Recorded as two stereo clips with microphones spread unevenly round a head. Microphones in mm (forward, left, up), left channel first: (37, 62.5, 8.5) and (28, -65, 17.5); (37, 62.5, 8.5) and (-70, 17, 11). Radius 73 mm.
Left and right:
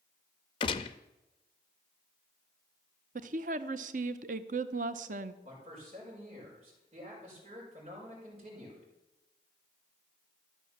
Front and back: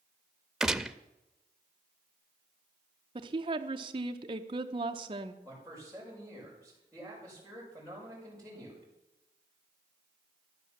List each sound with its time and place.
0.6 s a gunshot: 120° left, 0.5 m
3.1 s a woman speaking: 105° right, 0.7 m
5.4 s a man speaking: 60° right, 5.5 m